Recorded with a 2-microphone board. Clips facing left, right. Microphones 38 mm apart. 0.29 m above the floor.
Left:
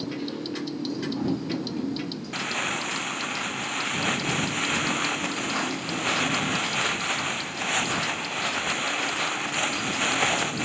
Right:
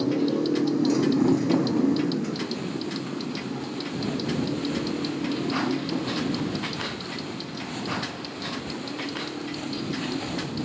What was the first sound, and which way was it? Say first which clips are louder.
A motorcycle: right 8 dB; 90° right.